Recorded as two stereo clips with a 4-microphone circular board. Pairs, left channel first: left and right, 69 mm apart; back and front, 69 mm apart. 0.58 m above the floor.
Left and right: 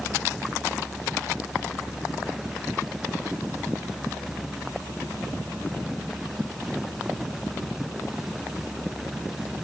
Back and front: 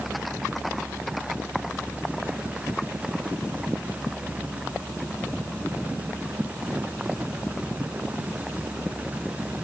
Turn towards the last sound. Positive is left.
No sound to turn to.